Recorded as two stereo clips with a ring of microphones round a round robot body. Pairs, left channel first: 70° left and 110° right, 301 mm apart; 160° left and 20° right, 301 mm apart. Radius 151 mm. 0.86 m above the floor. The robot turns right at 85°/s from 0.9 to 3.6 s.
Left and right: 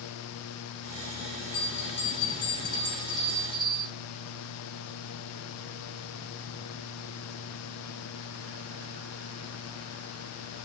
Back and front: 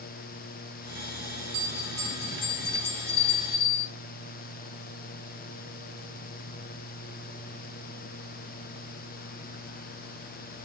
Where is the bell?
30° left, 4 m; by 3.9 s 155° right, 4 m.